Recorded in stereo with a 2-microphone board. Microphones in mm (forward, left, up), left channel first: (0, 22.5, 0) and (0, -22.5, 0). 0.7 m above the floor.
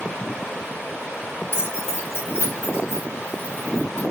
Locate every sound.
1.5 s keys jangling: 60° left (ahead or behind), 1.4 m; by 4.0 s 70° left (ahead or behind), 4 m